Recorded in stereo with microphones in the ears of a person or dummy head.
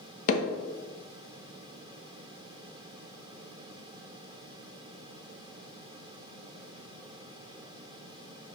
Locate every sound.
0.3 s hammering: 45° left (ahead or behind), 0.8 m